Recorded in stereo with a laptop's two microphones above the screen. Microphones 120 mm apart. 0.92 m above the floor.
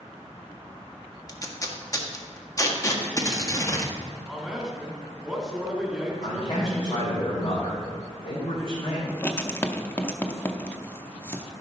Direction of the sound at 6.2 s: 55° left (ahead or behind).